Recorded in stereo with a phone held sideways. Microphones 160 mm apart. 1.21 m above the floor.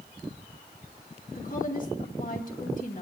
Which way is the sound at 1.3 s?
50° left (ahead or behind).